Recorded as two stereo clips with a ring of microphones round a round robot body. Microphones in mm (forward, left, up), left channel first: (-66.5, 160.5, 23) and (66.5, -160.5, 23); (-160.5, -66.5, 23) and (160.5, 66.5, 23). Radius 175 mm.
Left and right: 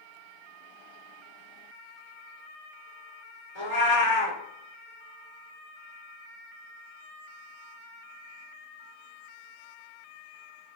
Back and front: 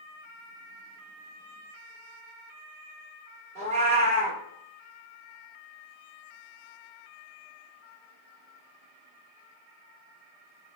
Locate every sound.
3.5 s a cat meowing: 90° left, 1.5 m